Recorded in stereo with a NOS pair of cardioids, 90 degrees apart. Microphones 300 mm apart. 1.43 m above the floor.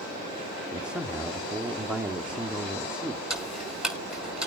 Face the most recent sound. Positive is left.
turn(degrees=0)